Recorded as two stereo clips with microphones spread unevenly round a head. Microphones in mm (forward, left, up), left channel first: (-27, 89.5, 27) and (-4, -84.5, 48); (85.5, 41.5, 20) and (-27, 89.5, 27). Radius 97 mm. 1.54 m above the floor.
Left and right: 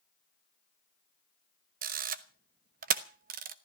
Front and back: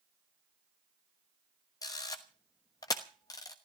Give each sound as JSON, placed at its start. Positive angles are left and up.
{"t": 1.8, "sound": "a camera shutter", "azimuth_deg": -90, "distance_m": 1.0}